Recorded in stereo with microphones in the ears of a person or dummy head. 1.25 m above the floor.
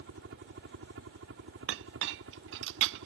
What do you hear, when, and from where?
0.0 s a helicopter: 65° right (ahead or behind); by 3.1 s 70° right (ahead or behind)
1.7 s a clink: 65° right (ahead or behind)